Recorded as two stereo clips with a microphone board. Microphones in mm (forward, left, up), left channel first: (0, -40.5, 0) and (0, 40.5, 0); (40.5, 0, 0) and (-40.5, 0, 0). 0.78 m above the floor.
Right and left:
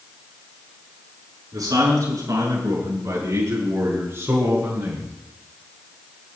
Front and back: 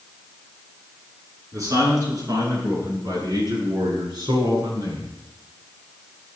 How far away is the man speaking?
About 8 m.